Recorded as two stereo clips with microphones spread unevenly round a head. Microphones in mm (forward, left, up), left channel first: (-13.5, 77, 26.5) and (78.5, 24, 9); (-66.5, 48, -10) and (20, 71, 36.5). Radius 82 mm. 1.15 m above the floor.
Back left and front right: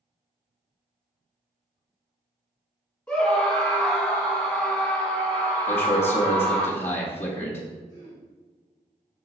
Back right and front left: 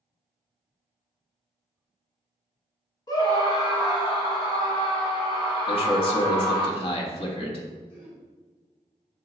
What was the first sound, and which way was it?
A scream, 125° right.